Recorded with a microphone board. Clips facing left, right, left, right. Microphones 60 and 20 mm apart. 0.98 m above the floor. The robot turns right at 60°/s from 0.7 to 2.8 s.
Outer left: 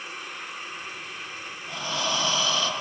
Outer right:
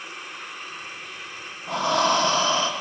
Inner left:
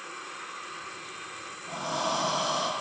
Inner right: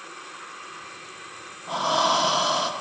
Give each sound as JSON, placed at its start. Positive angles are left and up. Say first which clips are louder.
{"t": 1.7, "sound": "breathing", "louder": "outer right 9 dB, inner right 9 dB", "azimuth_deg": -90, "distance_m": 0.6}